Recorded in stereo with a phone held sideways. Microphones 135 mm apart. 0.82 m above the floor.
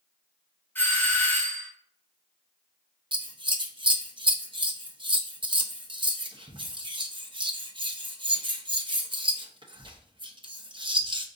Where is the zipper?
No zipper in this recording.